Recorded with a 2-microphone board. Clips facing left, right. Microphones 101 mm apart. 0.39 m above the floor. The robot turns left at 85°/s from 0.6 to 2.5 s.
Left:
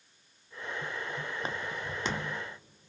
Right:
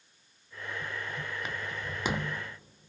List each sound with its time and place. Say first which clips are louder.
1.4 s footsteps: left 1 dB; 35° left (ahead or behind), 0.7 m; by 2.4 s 35° right (ahead or behind), 0.7 m